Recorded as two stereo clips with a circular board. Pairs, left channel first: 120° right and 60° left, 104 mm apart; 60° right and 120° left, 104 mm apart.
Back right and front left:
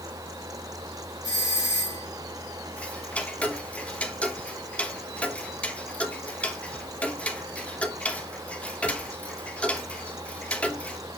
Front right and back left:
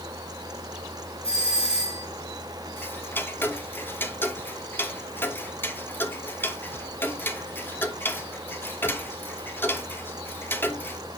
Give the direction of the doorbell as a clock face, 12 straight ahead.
2 o'clock.